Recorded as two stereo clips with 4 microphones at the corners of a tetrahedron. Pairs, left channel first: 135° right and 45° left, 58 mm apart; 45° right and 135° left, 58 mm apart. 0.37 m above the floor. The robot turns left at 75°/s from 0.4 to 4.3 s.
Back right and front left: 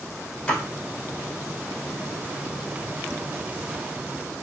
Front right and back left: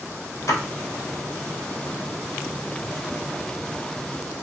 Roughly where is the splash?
Ahead right.